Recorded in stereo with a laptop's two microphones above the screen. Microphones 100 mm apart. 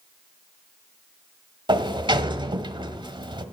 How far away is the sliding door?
About 1.2 m.